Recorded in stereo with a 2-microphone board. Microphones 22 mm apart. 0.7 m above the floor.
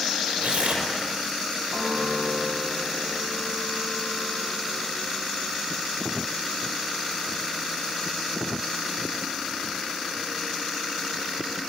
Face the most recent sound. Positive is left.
turn(degrees=-80)